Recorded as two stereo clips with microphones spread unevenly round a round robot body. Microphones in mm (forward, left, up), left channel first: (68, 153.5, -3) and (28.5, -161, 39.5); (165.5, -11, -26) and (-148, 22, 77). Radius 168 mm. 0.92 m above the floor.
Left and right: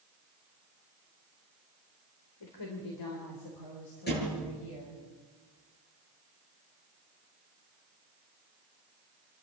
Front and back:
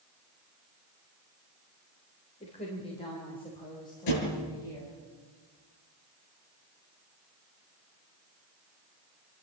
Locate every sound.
2.4 s a woman speaking: 60° left, 3 m; by 5.0 s 75° left, 5 m
4.1 s a thud: 20° left, 8 m